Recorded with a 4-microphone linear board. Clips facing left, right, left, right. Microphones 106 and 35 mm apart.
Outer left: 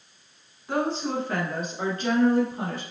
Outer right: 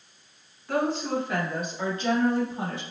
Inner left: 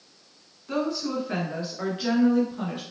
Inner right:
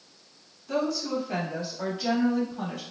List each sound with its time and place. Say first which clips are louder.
0.7 s a woman speaking: even, even; 25° left (ahead or behind), 1.1 m; by 2.8 s 55° left (ahead or behind), 1.8 m